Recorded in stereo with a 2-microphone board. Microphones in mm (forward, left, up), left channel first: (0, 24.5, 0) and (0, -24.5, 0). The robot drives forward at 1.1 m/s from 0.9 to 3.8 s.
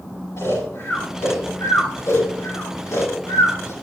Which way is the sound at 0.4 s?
60° left (ahead or behind).